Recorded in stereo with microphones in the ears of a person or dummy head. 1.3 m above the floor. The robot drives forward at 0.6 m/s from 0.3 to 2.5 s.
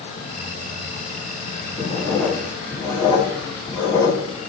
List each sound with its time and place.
1.8 s writing: 20° left (ahead or behind), 3.5 m